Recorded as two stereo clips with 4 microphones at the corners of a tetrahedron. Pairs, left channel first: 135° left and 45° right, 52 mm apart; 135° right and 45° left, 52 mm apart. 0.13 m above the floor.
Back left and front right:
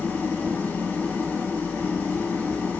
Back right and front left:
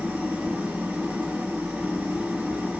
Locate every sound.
0.0 s an engine running: 95° left, 1.3 m